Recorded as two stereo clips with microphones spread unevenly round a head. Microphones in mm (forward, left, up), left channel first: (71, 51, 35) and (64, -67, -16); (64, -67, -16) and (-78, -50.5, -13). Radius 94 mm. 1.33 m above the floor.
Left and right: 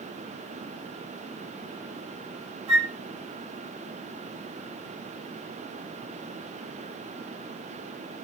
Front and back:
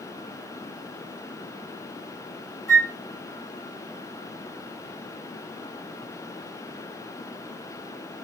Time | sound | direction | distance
2.7 | a flute | 60° right | 1.3 m